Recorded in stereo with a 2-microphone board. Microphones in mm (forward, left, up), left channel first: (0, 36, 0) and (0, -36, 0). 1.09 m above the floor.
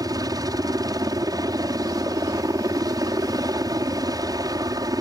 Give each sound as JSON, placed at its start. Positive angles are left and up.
{"t": 0.0, "sound": "a helicopter", "side_deg": -60}